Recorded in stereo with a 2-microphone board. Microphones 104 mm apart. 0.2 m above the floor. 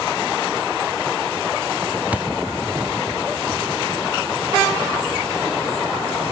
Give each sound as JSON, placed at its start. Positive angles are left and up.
{"t": 2.1, "sound": "a thud", "side_deg": -15}